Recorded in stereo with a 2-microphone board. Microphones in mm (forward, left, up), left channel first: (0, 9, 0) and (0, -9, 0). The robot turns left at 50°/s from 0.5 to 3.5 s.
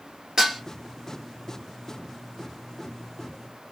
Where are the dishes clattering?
30° right (ahead or behind), 1.7 m; by 0.6 s 35° right (ahead or behind), 1.7 m.